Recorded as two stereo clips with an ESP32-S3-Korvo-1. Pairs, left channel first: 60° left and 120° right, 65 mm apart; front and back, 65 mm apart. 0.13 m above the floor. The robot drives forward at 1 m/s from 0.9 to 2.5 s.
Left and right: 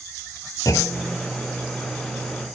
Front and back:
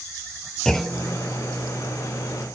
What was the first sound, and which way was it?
A clunk, 80° left.